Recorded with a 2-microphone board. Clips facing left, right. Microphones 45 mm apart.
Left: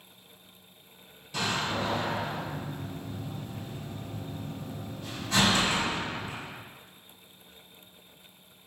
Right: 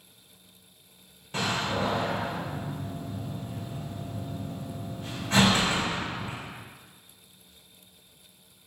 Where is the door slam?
40° right (ahead or behind), 0.8 m.